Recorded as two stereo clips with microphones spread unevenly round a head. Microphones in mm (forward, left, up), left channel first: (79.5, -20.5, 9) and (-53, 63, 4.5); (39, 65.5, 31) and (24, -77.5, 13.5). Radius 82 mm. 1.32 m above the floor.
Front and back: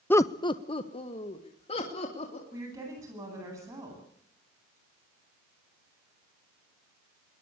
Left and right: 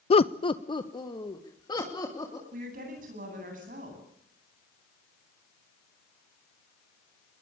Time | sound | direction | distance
0.1 | laughter | 45° left | 0.5 m
2.5 | a woman speaking | 140° right | 10 m